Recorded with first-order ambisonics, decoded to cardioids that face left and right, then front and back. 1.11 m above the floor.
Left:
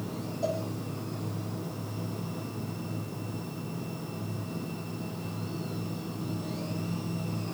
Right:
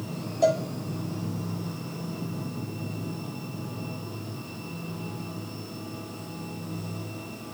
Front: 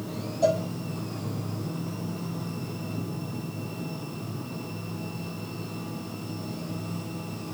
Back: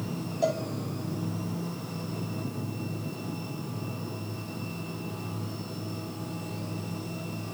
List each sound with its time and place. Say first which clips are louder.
0.4 s a cowbell: right 9 dB, front 4 dB; 105° right, 2.5 m